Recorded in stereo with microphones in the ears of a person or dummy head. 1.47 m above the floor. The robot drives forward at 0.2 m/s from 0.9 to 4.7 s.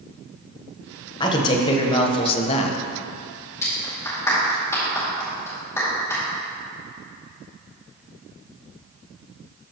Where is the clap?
15° left (ahead or behind), 2.5 m.